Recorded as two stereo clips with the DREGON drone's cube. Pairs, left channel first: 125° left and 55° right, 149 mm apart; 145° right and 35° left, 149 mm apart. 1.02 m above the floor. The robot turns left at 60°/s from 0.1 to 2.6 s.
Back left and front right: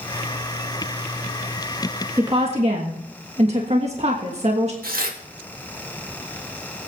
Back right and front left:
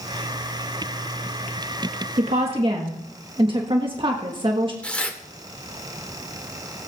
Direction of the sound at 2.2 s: 10° left.